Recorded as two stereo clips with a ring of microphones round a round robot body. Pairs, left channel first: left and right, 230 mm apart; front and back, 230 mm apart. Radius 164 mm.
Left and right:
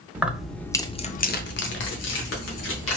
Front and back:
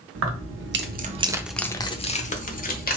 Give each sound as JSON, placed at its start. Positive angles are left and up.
{"t": 0.1, "sound": "keys jangling", "azimuth_deg": -170, "distance_m": 0.8}